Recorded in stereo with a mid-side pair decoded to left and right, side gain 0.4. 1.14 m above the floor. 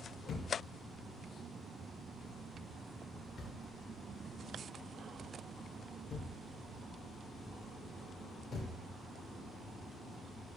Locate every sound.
0.3 s a thud: 55° left, 2.0 m